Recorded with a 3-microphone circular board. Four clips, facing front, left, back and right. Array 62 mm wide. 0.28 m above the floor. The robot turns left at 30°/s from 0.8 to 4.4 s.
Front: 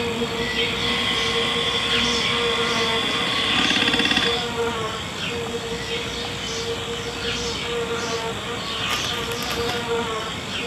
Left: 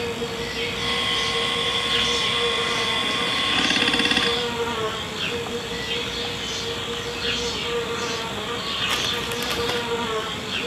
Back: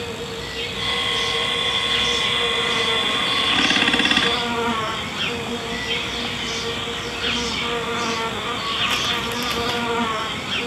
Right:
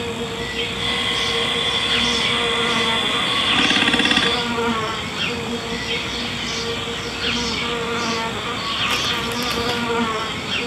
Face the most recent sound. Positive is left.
turn(degrees=-130)